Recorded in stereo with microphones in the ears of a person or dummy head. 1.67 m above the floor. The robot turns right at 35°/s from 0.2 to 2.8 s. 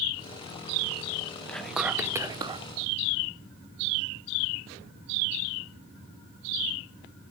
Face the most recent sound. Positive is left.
turn(degrees=-140)